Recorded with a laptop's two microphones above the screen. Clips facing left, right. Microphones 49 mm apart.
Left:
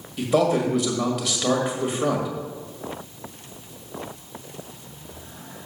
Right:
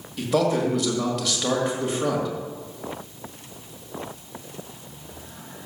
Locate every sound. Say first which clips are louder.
0.2 s a man speaking: left 2 dB; 5° left (ahead or behind), 1.5 m